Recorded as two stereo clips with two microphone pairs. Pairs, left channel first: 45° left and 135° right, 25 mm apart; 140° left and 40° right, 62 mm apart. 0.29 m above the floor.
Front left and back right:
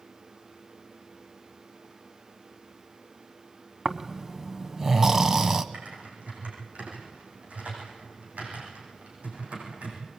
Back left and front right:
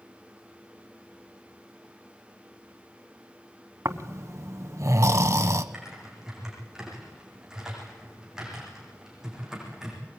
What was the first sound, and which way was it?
Snoring, 65° right.